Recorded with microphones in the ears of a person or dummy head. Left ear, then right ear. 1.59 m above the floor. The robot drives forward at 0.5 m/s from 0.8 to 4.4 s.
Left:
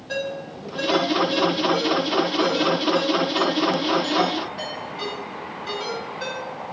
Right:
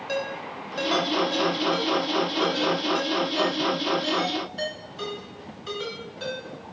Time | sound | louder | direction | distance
0.1 | a ringtone | left 2 dB | 45° right (ahead or behind) | 1.0 m